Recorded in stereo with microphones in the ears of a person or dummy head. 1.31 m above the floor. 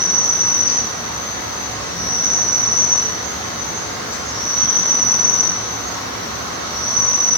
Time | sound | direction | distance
0.0 | an insect | 25° left (ahead or behind) | 1.3 m